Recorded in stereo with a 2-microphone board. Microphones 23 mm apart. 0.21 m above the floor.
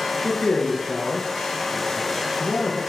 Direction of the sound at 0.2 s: 50° left (ahead or behind).